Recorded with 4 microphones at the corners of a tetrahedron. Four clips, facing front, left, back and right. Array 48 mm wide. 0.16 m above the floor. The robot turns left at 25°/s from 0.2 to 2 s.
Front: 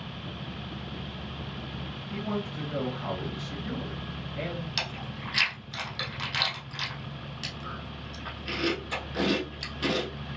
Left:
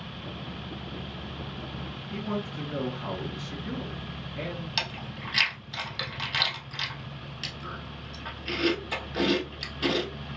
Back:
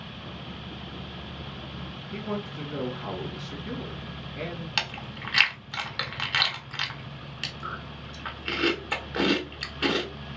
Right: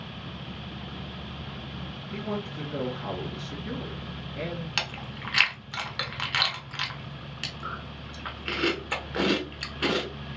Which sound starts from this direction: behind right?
Chewing, at 4.8 s.